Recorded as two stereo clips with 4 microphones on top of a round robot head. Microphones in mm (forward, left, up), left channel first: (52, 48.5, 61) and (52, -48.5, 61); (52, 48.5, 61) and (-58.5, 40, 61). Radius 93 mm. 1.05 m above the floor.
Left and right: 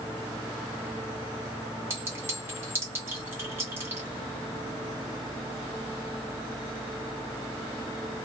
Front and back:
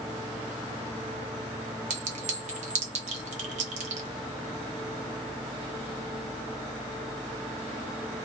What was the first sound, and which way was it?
A clink, 160° right.